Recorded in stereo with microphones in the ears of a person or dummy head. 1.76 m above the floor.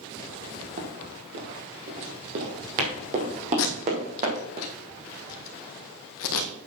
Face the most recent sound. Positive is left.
turn(degrees=75)  # may be behind; listen again after turning